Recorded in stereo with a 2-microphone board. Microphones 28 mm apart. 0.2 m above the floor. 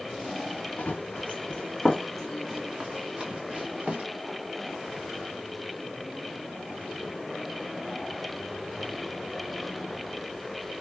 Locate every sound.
0.8 s running footsteps: 50° left (ahead or behind), 0.9 m; by 4.0 s 40° right (ahead or behind), 1.3 m